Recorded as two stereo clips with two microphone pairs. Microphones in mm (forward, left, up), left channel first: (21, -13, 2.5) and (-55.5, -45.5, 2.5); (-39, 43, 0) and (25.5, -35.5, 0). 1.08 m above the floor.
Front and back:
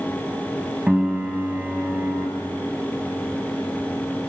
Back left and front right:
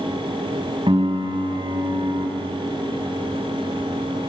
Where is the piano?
80° right, 2.5 m.